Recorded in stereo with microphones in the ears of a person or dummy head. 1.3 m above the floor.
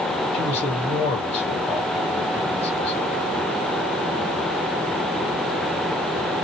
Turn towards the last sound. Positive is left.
turn(degrees=15)  # may be behind; listen again after turning